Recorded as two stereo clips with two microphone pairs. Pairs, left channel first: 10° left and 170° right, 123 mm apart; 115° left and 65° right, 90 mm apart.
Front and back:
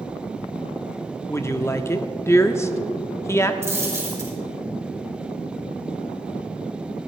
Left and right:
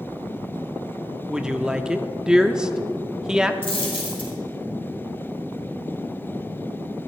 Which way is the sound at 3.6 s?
120° left.